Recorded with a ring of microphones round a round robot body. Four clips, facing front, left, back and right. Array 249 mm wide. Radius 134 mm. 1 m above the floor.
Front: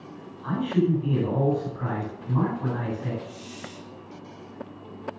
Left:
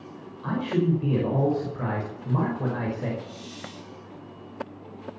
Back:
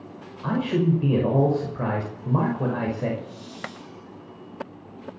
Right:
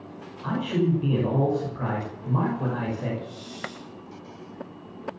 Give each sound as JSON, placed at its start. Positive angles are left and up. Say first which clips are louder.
{"t": 0.4, "sound": "a man speaking", "louder": "even, back 1 dB", "azimuth_deg": 175, "distance_m": 5.5}
{"t": 3.2, "sound": "a hiss", "louder": "right 2 dB, back 2 dB", "azimuth_deg": 15, "distance_m": 5.5}